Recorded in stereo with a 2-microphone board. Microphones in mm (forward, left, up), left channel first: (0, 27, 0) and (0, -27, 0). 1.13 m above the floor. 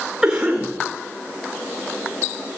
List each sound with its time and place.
0.2 s a cough: 15° right (ahead or behind), 5 m